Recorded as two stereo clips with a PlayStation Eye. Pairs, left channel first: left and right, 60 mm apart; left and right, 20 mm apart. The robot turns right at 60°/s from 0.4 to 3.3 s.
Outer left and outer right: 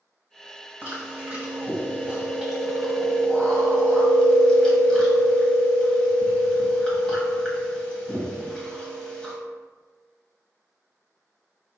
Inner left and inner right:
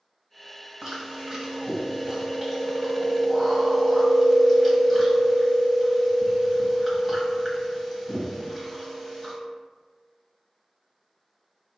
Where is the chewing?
120° right, 1.0 m; by 9.3 s 30° left, 1.0 m.